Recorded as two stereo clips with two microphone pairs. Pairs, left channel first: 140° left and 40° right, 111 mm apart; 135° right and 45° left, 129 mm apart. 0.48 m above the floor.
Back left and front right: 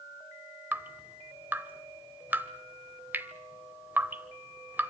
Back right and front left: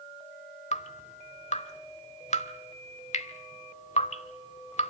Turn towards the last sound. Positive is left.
turn(degrees=-110)